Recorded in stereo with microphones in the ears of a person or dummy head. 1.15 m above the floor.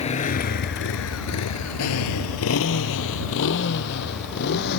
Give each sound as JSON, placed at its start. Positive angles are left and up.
{"t": 0.0, "sound": "a motorcycle", "side_deg": 30}